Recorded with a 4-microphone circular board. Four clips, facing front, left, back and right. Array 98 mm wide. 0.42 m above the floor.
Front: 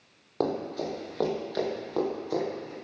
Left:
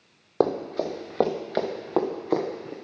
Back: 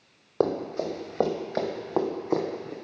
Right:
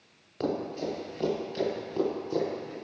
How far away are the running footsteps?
About 4 m.